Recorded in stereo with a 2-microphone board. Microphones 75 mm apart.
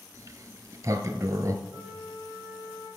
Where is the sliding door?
45° right (ahead or behind), 0.7 m.